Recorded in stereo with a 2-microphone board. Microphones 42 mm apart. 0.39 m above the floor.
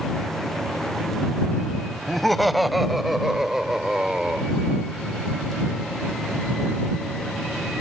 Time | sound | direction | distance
2.1 | laughter | 5° left (ahead or behind) | ?